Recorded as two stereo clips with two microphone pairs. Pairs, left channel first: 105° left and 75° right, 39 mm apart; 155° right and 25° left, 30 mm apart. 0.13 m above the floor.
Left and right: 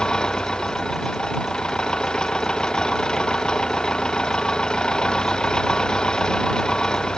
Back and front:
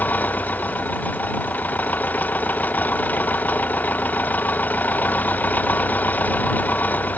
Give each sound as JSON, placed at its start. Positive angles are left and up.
{"t": 0.0, "sound": "an engine running", "azimuth_deg": 175}